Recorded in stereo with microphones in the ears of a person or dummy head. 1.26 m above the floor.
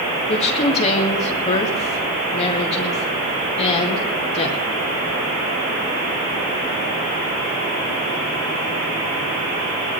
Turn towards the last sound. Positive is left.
turn(degrees=30)  # may be behind; listen again after turning